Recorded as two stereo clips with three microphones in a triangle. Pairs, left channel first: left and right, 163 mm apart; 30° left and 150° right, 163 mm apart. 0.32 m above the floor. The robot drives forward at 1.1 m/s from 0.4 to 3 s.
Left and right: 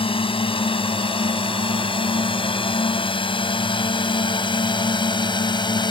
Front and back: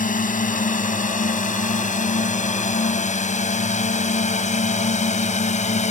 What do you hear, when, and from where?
0.0 s a drone: 40° left